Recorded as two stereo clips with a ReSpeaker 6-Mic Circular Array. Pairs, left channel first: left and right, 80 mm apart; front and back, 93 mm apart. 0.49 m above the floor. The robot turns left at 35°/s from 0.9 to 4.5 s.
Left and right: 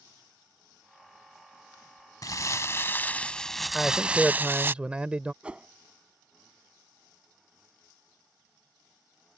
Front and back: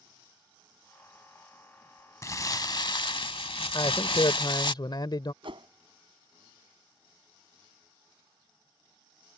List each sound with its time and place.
2.2 s crumpling: 50° left; by 4.7 s 25° right
3.7 s a man speaking: 10° left; by 5.3 s 15° right
5.4 s a whoosh: 165° right